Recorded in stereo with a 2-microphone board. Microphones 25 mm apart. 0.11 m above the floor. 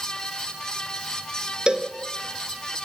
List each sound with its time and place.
1.7 s a cowbell: 35° right (ahead or behind), 1.6 m